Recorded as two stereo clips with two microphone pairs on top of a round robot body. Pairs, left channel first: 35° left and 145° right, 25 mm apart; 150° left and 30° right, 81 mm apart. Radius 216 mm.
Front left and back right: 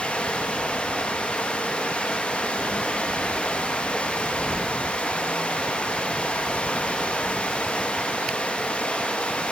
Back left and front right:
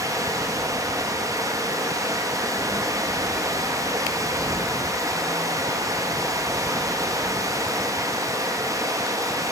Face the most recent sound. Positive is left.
turn(degrees=15)